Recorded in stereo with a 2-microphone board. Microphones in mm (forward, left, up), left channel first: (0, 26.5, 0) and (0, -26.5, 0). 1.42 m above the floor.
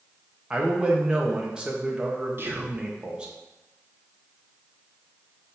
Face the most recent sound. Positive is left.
turn(degrees=-45)  # may be behind; listen again after turning